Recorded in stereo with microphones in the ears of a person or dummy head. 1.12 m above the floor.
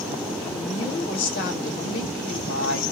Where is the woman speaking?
70° left (ahead or behind), 1.1 m.